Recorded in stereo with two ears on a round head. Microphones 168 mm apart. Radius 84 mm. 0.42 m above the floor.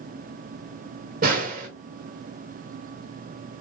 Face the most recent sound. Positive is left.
turn(degrees=-50)  # may be behind; listen again after turning